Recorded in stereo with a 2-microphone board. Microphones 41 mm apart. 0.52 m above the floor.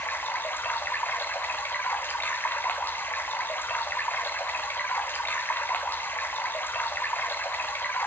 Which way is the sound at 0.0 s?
55° left (ahead or behind).